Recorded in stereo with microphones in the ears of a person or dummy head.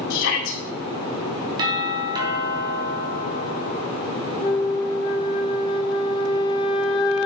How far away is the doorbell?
About 3.5 m.